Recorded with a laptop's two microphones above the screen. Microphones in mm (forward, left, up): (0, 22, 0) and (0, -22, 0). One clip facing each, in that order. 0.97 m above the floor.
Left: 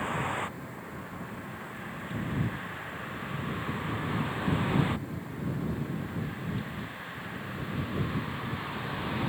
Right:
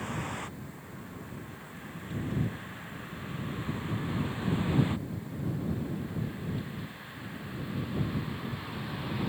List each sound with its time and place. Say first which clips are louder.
0.0 s a vehicle: left 5 dB; 25° left (ahead or behind); by 9.3 s 20° left (ahead or behind)